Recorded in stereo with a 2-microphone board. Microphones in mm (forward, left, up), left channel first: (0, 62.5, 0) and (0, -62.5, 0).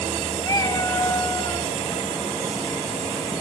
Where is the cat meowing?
30° left (ahead or behind), 1.8 m.